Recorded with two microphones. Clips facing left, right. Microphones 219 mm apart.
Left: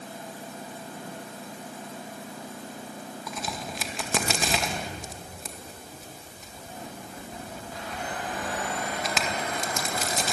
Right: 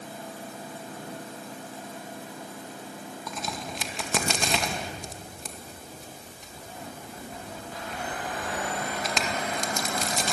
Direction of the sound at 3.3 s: Centre (ahead or behind).